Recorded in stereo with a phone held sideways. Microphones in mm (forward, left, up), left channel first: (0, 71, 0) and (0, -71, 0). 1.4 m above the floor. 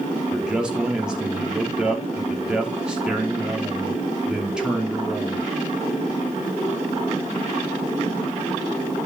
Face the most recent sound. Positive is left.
turn(degrees=-5)  # may be behind; listen again after turning